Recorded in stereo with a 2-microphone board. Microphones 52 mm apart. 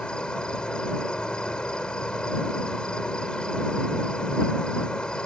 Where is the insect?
15° left (ahead or behind).